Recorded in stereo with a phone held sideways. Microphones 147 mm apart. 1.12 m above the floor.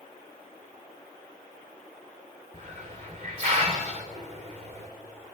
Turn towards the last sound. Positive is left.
turn(degrees=-50)  # may be behind; listen again after turning